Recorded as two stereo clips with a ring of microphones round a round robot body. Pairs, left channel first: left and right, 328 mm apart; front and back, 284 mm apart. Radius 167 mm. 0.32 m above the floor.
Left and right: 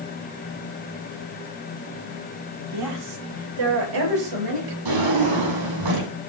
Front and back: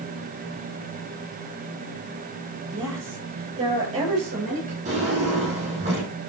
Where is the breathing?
I don't hear breathing.